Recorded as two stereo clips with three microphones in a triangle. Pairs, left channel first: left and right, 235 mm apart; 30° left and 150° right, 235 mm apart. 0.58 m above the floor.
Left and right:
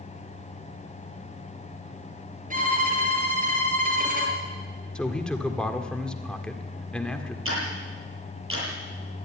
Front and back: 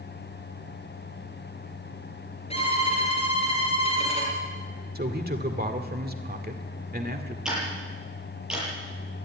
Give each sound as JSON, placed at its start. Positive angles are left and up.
{"t": 2.5, "sound": "a violin", "azimuth_deg": -35, "distance_m": 5.5}
{"t": 5.0, "sound": "a man speaking", "azimuth_deg": 175, "distance_m": 1.8}
{"t": 7.5, "sound": "ticking", "azimuth_deg": -65, "distance_m": 8.0}